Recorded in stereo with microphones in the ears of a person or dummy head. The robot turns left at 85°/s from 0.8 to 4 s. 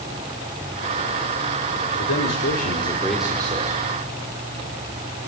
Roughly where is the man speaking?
Left.